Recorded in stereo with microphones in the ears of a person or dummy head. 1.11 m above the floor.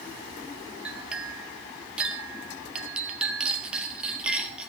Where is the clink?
Centre (ahead or behind), 1.7 m.